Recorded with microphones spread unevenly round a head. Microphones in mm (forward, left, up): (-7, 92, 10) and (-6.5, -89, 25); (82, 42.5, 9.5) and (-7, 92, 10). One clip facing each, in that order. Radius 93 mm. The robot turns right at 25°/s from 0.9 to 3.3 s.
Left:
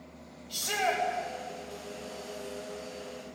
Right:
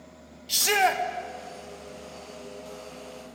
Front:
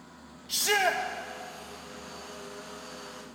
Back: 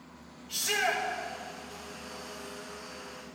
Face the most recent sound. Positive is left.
turn(degrees=-15)